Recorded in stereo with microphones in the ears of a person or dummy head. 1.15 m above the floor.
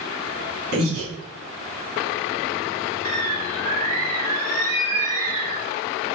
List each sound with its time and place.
0.7 s breathing: 80° right, 3.5 m
3.0 s a bird: 45° right (ahead or behind), 2.5 m